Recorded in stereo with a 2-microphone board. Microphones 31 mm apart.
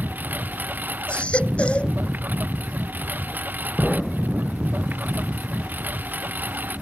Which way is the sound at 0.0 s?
75° right (ahead or behind).